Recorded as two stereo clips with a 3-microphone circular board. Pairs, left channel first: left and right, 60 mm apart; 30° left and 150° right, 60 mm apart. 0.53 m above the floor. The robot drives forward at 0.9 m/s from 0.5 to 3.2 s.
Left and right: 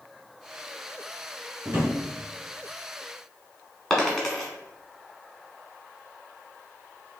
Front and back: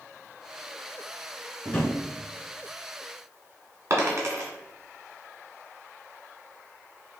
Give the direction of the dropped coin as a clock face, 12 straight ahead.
6 o'clock.